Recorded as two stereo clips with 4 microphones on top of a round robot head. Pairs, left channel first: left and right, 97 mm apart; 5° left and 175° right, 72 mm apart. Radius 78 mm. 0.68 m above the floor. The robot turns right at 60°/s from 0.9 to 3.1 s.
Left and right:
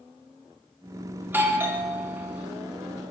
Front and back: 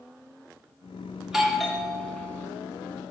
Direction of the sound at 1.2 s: 110° right.